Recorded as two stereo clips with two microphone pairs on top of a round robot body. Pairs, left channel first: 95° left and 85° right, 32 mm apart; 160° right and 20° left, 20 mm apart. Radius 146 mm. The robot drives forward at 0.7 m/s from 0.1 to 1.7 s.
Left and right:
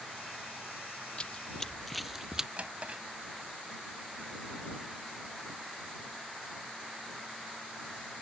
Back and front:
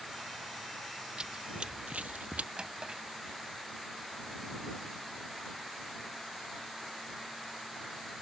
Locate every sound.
1.2 s running footsteps: 45° left; by 2.5 s 10° right
2.6 s a drawer: 35° right